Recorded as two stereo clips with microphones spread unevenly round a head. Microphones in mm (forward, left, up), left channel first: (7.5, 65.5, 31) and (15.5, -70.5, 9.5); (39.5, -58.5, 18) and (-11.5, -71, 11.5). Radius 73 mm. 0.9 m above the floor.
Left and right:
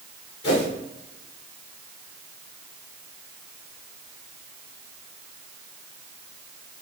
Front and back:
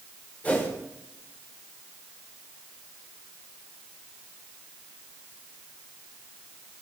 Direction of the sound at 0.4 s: 95° left.